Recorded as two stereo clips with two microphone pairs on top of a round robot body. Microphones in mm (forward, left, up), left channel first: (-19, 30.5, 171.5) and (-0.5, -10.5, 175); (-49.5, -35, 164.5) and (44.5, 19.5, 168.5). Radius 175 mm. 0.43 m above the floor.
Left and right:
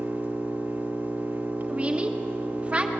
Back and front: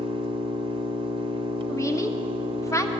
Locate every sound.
0.0 s an engine running: 15° right, 1.0 m
1.7 s a woman speaking: 115° right, 1.4 m